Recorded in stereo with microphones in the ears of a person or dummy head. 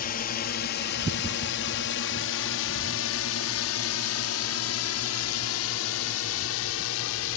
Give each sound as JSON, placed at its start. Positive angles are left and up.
{"t": 0.0, "sound": "a drone", "side_deg": 40}